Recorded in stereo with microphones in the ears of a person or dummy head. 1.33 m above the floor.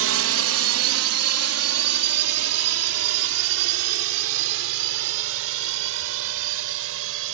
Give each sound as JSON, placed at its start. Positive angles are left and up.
{"t": 0.0, "sound": "a drone", "side_deg": -65}